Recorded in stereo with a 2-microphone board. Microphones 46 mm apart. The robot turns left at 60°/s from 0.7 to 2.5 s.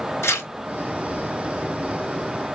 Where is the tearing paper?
75° left (ahead or behind), 1.8 m.